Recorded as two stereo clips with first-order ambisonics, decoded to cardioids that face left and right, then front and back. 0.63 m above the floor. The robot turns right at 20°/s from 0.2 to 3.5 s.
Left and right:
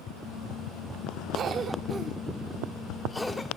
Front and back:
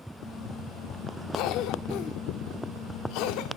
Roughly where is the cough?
Ahead right.